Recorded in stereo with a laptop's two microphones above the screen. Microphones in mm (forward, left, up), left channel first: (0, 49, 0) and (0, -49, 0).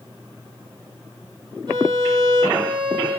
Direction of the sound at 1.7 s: 60° right (ahead or behind).